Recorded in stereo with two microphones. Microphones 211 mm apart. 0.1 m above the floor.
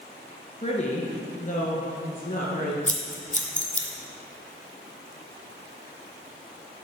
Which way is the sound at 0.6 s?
30° left (ahead or behind).